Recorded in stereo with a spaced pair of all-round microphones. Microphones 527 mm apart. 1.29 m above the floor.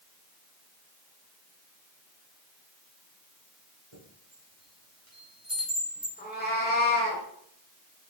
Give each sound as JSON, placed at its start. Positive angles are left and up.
{"t": 3.9, "sound": "a chime", "side_deg": -75, "distance_m": 1.5}
{"t": 6.2, "sound": "a cat meowing", "side_deg": 20, "distance_m": 1.1}